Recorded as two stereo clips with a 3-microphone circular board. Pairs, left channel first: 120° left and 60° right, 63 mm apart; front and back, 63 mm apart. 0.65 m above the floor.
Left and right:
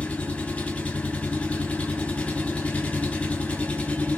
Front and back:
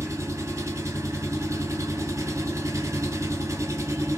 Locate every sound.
0.0 s an engine running: straight behind, 1.1 m